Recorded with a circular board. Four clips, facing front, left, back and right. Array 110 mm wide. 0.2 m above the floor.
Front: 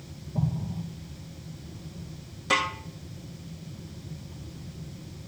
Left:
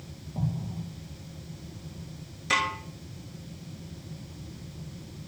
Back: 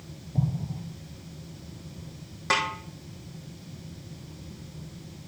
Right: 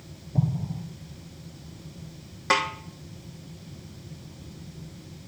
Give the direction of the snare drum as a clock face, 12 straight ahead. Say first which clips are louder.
Right 3 dB, even; 4 o'clock.